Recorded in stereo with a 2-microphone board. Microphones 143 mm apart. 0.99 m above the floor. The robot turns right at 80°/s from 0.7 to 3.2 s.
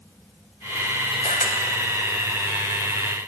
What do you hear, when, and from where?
1.2 s a camera shutter: 50° left (ahead or behind), 3.5 m; by 1.6 s 75° left (ahead or behind), 3.5 m